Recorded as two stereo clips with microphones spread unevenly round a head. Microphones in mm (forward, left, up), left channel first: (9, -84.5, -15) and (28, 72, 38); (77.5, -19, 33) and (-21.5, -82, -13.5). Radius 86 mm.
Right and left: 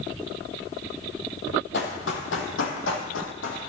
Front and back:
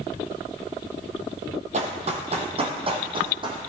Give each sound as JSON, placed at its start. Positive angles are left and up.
{"t": 1.7, "sound": "running footsteps", "azimuth_deg": -120, "distance_m": 2.5}